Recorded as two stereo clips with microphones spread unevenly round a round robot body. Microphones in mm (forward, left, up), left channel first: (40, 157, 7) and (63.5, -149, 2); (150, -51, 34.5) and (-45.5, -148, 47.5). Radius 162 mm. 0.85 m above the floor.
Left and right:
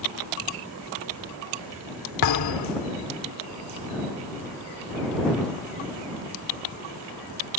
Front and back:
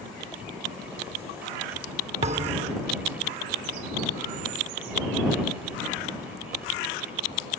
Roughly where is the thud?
Behind left.